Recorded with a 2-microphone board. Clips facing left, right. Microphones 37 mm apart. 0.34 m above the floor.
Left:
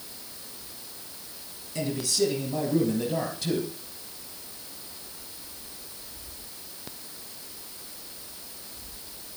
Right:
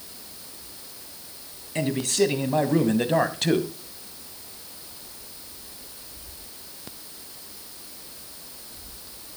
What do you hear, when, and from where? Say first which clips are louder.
1.8 s a man speaking: right 4 dB; 45° right (ahead or behind), 2 m; by 3.7 s 65° right (ahead or behind), 1.8 m